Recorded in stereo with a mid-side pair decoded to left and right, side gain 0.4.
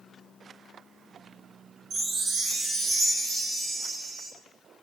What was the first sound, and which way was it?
A chime, 65° right.